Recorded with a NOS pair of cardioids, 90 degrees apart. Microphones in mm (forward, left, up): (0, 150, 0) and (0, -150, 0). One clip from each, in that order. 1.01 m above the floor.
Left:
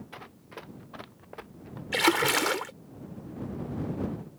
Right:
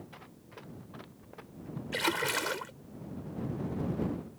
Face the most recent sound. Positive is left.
turn(degrees=40)